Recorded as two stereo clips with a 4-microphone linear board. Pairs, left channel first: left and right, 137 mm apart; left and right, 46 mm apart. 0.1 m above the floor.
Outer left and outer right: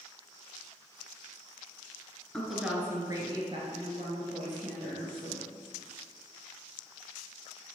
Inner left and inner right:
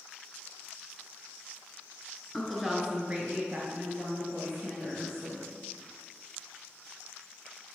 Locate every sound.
2.3 s a woman speaking: 5° left (ahead or behind), 1.1 m; by 5.4 s 65° right (ahead or behind), 2.5 m